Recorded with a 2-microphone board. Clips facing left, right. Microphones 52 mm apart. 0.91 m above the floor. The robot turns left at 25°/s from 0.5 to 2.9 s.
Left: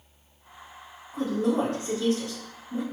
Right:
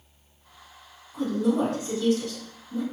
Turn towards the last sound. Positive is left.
turn(degrees=10)